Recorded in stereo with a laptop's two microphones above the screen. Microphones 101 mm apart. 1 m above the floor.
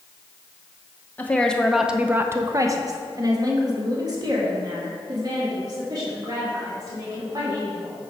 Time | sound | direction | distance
1.2 | a woman speaking | 20° left (ahead or behind) | 0.6 m